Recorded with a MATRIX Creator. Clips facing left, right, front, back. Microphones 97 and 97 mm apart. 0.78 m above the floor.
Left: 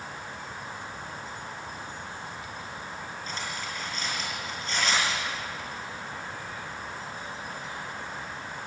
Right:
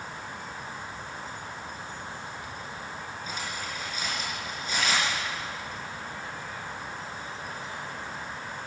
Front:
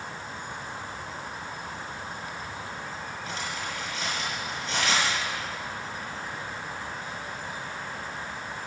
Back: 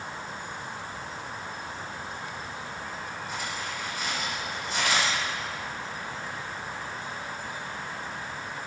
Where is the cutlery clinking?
10° right, 6.5 m.